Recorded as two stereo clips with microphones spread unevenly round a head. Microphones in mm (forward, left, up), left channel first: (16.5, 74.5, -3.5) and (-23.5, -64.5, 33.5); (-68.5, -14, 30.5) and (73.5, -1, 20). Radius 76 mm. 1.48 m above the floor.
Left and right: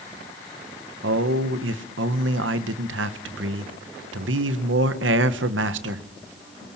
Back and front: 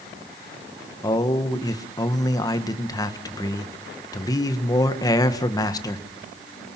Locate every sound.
1.0 s a man speaking: 110° right, 1.5 m